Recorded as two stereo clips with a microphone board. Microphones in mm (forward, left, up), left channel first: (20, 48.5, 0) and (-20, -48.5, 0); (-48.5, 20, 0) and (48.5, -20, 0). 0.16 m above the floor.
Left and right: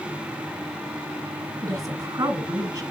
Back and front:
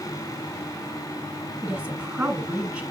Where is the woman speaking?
90° right, 1.6 m.